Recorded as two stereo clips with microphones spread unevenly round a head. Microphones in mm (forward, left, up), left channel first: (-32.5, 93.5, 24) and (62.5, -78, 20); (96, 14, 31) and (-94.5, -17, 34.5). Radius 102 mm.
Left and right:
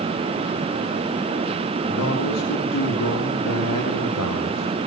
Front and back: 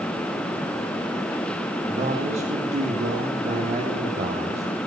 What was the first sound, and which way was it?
A man speaking, 130° left.